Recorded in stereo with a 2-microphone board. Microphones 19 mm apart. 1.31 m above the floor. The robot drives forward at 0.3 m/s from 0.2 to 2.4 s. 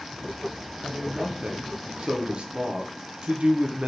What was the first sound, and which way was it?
A man speaking, 50° right (ahead or behind).